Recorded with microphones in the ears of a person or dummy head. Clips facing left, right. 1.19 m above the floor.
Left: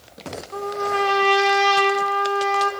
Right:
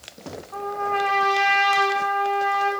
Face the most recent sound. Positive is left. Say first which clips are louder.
# left 2 dB
turn(degrees=50)  # may be behind; listen again after turning